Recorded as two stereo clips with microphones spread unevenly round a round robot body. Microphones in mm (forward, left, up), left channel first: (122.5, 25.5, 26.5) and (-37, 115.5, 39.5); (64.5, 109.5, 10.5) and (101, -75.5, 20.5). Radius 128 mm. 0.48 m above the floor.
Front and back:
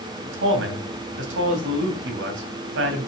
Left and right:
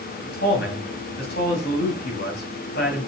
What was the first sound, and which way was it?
A man speaking, 150° left.